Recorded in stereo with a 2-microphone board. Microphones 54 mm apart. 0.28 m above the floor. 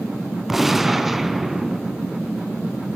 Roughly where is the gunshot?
Centre.